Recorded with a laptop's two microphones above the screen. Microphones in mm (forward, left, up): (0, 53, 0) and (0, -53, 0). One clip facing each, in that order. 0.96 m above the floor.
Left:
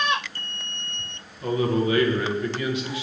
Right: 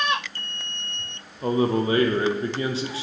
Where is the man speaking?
30° right (ahead or behind), 0.7 m.